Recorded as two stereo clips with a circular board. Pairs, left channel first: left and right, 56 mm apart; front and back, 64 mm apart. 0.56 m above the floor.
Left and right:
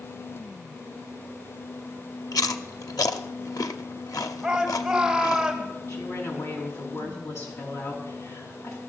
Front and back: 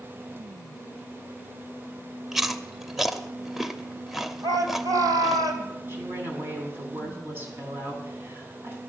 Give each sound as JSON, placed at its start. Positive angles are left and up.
{"t": 2.3, "sound": "chewing", "azimuth_deg": 90, "distance_m": 0.7}
{"t": 4.4, "sound": "a shout", "azimuth_deg": -175, "distance_m": 3.0}
{"t": 5.9, "sound": "a woman speaking", "azimuth_deg": 125, "distance_m": 5.0}